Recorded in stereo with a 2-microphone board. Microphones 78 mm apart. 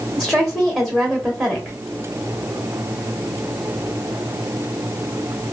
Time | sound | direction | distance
0.2 | a woman speaking | 5° left (ahead or behind) | 0.9 m